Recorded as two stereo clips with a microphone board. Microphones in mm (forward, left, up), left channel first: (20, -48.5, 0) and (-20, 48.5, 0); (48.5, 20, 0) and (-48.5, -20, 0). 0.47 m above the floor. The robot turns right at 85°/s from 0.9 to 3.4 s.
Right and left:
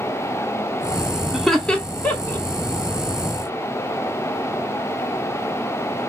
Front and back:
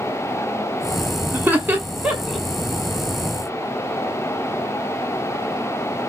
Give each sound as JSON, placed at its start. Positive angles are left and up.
{"t": 1.3, "sound": "laughter", "azimuth_deg": -165, "distance_m": 0.7}